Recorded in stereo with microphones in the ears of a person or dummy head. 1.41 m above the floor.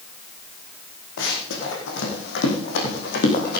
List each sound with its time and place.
1.2 s running footsteps: 70° left (ahead or behind), 4.5 m; by 3.6 s 55° left (ahead or behind), 4 m